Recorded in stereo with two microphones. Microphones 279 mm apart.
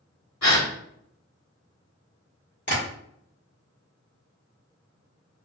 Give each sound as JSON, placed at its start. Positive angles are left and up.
{"t": 0.4, "sound": "a gasp", "side_deg": 75, "distance_m": 1.4}
{"t": 2.7, "sound": "tapping", "side_deg": 40, "distance_m": 1.9}